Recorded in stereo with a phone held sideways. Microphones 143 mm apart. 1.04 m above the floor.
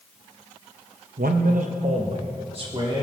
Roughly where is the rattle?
I don't hear a rattle.